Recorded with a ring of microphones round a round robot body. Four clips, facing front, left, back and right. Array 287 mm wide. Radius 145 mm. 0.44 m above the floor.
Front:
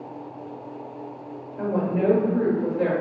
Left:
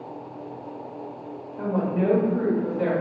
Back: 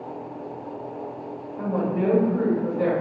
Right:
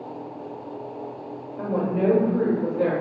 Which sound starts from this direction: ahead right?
A woman speaking, at 1.6 s.